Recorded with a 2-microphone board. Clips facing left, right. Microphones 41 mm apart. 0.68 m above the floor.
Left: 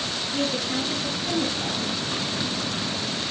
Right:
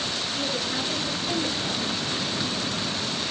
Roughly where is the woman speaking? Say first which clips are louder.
Left 5 dB; left.